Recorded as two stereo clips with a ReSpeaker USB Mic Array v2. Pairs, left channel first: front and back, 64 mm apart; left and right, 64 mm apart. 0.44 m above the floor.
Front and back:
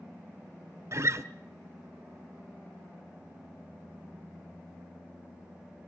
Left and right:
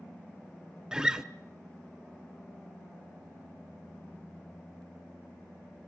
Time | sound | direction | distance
0.9 | a guitar | 165° right | 0.9 m